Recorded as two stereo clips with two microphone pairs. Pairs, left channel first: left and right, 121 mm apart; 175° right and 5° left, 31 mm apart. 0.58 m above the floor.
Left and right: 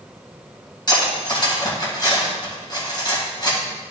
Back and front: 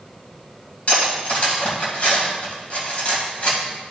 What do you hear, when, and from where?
0.9 s cutlery clinking: 140° left, 2.5 m